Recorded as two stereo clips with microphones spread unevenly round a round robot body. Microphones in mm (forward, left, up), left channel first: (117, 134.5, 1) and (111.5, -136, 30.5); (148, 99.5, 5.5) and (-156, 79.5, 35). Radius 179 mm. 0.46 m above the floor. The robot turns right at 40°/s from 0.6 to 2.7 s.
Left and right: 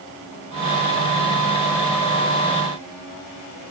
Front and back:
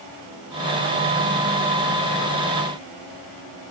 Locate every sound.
Only background noise.